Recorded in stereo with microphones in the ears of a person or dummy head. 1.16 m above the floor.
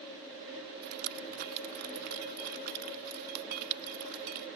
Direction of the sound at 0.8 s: 55° right (ahead or behind).